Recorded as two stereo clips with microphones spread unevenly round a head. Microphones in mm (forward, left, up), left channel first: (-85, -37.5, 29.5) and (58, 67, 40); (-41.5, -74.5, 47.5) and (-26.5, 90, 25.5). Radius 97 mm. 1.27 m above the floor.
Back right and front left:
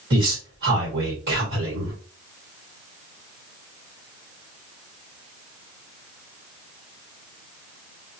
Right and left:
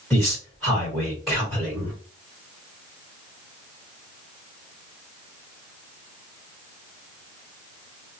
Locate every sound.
0.1 s a man speaking: straight ahead, 1.2 m